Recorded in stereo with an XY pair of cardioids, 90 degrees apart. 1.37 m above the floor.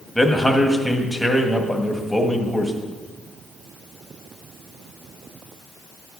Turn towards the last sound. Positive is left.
turn(degrees=10)